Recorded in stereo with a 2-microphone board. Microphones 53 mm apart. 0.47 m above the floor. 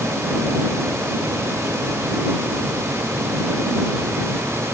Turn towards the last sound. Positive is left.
No sound to turn to.